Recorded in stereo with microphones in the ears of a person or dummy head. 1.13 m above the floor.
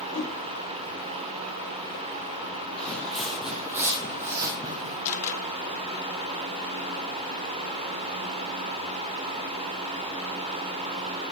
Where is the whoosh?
70° left (ahead or behind), 4.5 m.